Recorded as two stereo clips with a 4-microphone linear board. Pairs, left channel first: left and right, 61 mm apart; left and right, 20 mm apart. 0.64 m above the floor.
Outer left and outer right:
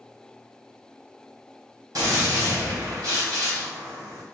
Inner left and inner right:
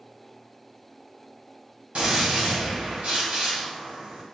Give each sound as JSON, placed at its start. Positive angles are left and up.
{"t": 1.9, "sound": "a gunshot", "side_deg": -80, "distance_m": 2.0}